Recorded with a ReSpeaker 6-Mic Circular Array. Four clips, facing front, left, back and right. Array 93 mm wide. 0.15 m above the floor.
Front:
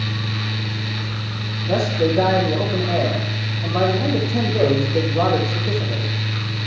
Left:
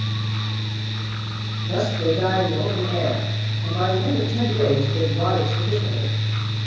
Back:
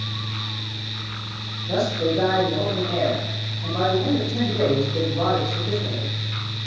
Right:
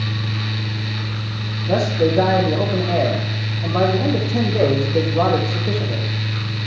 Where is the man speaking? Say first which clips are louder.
Right 4 dB, front 3 dB; 60° right, 5 m.